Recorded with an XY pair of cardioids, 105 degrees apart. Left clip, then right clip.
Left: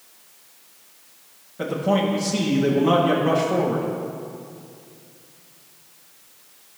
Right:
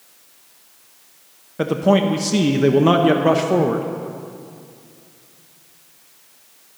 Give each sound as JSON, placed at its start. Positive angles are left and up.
{"t": 1.6, "sound": "a man speaking", "azimuth_deg": -65, "distance_m": 0.8}